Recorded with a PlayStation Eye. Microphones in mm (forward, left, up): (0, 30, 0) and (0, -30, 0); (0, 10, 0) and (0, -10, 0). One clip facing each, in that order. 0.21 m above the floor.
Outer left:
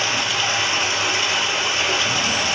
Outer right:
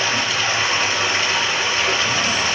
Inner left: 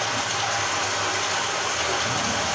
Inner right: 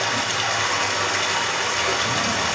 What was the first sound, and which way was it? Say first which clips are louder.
Running water: outer right 1 dB, inner right 3 dB; 40° right (ahead or behind).